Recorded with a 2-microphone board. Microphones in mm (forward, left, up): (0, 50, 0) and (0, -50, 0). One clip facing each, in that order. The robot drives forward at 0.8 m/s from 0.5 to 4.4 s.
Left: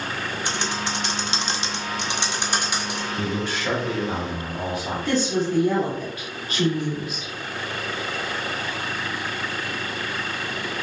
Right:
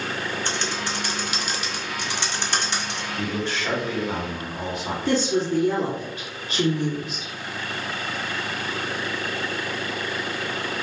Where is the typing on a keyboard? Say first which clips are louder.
Left 1 dB; 15° left (ahead or behind), 1.0 m; by 3.1 s 10° left (ahead or behind), 1.4 m.